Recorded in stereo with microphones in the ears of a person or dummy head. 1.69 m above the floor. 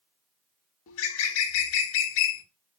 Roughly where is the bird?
Left.